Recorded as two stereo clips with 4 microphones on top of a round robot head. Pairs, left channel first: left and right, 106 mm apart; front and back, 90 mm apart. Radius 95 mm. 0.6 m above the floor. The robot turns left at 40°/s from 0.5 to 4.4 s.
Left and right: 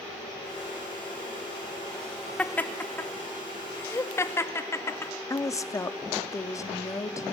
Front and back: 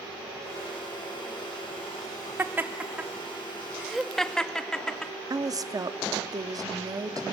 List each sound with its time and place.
2.4 s laughter: 150° left, 1.1 m; by 5.1 s 70° left, 1.1 m
5.3 s a woman speaking: 140° left, 0.9 m